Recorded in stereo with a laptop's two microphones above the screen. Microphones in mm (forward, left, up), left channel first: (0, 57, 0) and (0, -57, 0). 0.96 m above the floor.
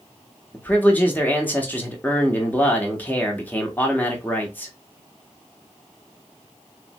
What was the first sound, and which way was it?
A man speaking, 15° left (ahead or behind).